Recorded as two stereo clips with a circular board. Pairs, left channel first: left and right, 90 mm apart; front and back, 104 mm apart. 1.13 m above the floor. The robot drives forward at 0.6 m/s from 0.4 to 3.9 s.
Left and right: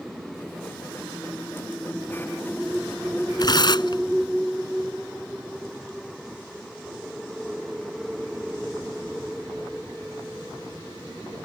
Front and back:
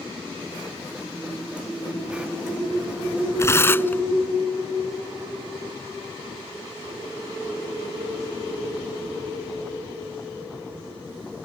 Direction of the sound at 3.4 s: 60° left.